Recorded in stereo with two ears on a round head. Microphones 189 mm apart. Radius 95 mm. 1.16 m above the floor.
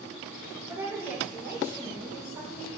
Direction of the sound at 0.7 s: 15° right (ahead or behind).